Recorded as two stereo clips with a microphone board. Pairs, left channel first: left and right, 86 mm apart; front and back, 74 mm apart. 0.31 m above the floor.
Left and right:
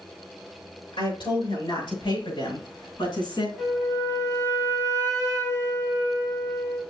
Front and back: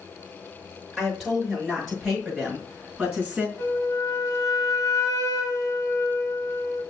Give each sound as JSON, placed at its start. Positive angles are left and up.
{"t": 0.9, "sound": "a woman speaking", "azimuth_deg": 90, "distance_m": 5.5}
{"t": 3.6, "sound": "a flute", "azimuth_deg": 35, "distance_m": 1.9}